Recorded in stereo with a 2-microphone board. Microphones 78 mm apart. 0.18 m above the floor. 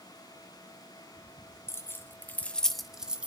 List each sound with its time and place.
1.7 s keys jangling: 35° left (ahead or behind), 1.2 m; by 3.3 s 15° right (ahead or behind), 1.0 m